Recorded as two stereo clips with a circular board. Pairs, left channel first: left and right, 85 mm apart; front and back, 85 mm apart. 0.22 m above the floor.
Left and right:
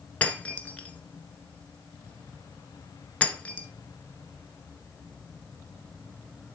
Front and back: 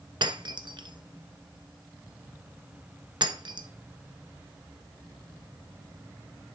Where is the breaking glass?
165° left, 1.1 m.